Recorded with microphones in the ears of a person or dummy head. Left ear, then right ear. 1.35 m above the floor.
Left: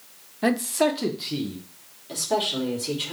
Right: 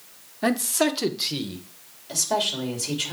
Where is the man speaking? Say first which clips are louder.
Left 1 dB; centre (ahead or behind), 0.7 m; by 1.6 s 40° right (ahead or behind), 1.1 m.